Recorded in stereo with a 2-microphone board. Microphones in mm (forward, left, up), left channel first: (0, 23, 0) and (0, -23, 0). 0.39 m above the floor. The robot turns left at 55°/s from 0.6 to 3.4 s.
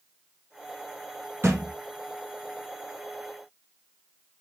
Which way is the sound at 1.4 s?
60° right (ahead or behind).